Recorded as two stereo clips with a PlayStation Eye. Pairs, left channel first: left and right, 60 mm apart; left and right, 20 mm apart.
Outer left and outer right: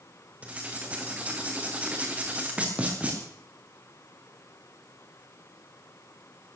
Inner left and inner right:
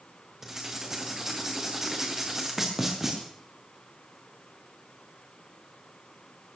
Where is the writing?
25° right (ahead or behind), 4.5 m.